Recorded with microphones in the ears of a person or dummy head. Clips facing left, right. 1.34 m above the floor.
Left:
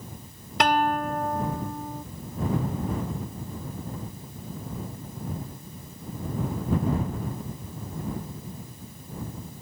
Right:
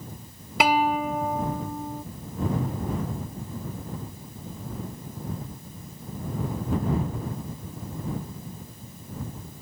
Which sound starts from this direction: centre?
A guitar, at 0.6 s.